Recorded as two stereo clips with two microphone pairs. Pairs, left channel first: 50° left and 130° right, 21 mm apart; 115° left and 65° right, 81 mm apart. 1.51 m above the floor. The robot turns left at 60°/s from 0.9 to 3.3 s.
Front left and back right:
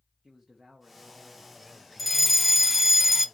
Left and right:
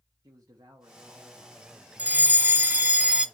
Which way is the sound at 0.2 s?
80° right.